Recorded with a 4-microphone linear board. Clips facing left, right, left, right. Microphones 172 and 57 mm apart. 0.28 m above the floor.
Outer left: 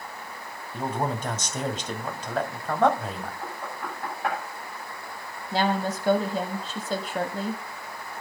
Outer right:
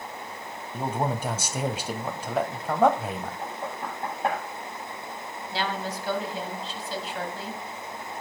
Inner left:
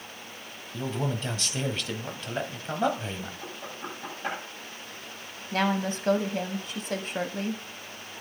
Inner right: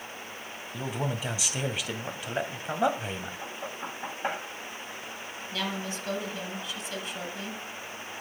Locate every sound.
0.7 s a man speaking: 10° right (ahead or behind), 1.6 m
3.4 s knocking: 25° right (ahead or behind), 8 m
5.5 s a woman speaking: 45° left (ahead or behind), 1.8 m